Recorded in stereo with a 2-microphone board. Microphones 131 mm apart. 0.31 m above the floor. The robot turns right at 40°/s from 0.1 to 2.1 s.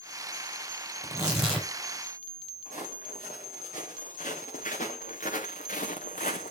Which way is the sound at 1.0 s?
15° right (ahead or behind).